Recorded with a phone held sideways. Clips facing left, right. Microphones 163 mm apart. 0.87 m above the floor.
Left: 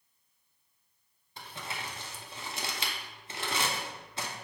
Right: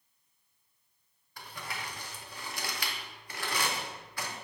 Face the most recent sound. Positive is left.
turn(degrees=25)  # may be behind; listen again after turning